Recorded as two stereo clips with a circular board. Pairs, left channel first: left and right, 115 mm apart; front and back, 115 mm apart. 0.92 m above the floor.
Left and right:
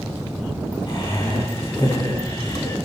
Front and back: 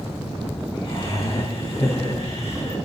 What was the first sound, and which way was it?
Laughter, 40° left.